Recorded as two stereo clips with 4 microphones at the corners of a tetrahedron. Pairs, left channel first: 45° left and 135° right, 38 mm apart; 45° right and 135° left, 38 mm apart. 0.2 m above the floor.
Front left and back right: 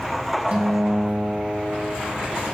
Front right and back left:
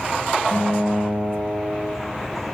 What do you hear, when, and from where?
0.5 s a guitar: 95° right, 0.6 m